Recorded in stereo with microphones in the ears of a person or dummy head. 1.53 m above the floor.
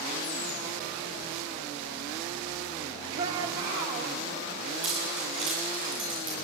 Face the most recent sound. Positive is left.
turn(degrees=-30)  # may be behind; listen again after turning